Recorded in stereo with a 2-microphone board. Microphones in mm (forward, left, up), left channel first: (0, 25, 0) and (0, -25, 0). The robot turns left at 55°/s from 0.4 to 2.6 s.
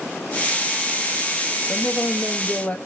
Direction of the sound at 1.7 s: 80° left.